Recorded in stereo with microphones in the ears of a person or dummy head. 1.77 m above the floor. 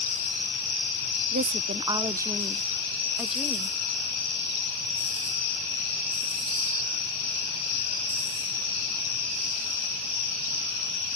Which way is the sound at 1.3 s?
40° right (ahead or behind).